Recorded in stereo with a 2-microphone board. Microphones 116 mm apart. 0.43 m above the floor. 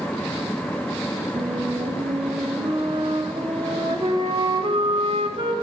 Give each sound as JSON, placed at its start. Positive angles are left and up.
{"t": 1.4, "sound": "a flute", "side_deg": -50, "distance_m": 2.0}